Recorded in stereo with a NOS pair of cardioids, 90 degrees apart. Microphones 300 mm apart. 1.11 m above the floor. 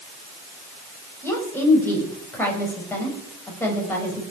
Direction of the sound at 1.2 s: 5° left.